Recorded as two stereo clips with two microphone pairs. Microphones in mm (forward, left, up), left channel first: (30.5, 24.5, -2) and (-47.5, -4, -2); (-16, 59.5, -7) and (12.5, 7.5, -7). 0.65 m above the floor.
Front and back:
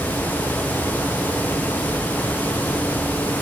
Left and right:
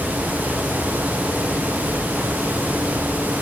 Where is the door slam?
No door slam in this recording.